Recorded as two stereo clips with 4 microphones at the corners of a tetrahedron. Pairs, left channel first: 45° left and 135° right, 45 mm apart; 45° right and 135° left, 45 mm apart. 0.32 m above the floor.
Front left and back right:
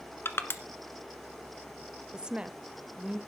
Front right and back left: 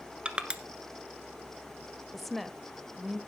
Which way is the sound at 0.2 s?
70° left.